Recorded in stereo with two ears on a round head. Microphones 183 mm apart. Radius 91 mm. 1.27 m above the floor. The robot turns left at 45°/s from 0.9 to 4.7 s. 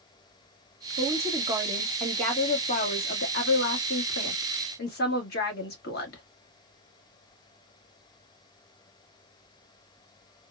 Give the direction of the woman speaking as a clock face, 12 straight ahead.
5 o'clock.